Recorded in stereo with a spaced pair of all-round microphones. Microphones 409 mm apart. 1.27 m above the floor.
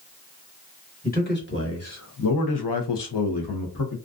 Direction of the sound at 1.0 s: 20° left (ahead or behind).